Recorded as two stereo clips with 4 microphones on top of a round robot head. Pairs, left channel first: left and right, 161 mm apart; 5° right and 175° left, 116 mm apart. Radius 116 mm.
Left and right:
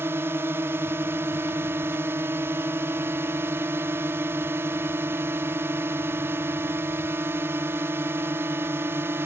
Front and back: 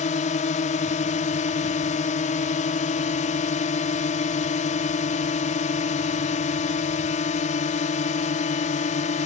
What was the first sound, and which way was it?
A drone, 15° right.